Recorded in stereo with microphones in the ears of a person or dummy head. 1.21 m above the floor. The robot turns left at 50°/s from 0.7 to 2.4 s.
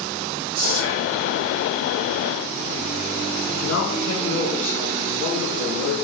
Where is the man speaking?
55° left (ahead or behind), 1.8 m.